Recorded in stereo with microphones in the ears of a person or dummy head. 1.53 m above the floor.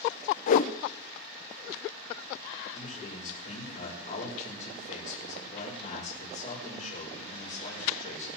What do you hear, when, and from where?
0.5 s a whoosh: 45° left (ahead or behind), 0.5 m
2.7 s a man speaking: 40° left (ahead or behind), 5 m